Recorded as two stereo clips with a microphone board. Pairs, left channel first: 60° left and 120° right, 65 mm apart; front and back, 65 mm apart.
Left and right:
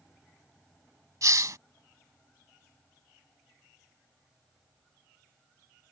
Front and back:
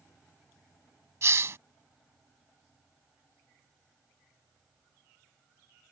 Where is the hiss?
140° right.